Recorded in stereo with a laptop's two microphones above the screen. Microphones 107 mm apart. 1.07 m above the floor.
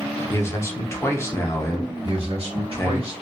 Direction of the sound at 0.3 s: 25° left (ahead or behind).